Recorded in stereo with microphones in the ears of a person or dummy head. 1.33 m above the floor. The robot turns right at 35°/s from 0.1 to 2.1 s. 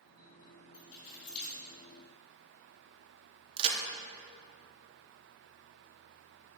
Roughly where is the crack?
Right.